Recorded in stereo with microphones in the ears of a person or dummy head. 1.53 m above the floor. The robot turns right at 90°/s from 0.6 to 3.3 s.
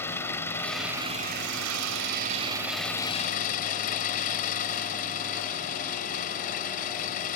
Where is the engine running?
165° left; by 7.4 s 45° left.